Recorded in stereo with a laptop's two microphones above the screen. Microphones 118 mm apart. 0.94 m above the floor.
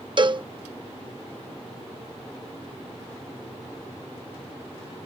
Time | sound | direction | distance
0.2 | a cowbell | 45° right (ahead or behind) | ?